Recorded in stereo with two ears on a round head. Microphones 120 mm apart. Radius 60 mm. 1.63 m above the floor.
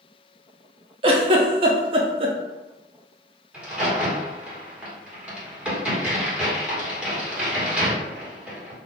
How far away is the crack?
About 1.2 m.